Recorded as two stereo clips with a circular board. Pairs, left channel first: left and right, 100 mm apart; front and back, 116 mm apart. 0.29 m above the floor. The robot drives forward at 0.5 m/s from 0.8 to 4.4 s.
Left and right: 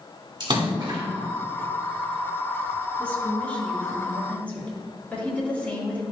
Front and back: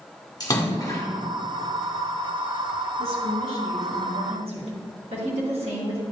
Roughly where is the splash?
Ahead right.